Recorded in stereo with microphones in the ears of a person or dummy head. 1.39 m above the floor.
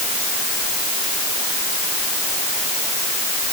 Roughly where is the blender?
I don't hear a blender.